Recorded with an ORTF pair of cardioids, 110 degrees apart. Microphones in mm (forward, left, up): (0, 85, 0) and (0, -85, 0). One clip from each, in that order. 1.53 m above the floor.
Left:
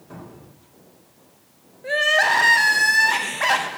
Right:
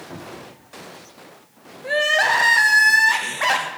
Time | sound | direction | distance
0.1 | a cupboard door | 20° right | 2.5 m
1.8 | crying | straight ahead | 0.8 m